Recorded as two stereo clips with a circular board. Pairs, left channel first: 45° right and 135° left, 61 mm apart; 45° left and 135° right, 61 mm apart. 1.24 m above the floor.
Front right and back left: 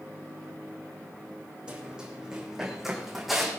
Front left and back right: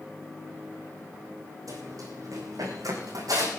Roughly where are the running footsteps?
Behind right.